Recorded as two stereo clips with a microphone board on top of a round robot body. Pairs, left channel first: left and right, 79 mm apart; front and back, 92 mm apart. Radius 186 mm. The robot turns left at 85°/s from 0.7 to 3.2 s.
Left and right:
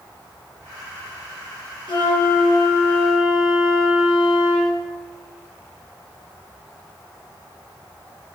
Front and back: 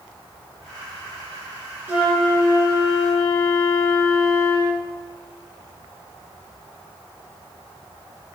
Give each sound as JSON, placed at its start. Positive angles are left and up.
{"t": 1.9, "sound": "a flute", "azimuth_deg": 110, "distance_m": 3.0}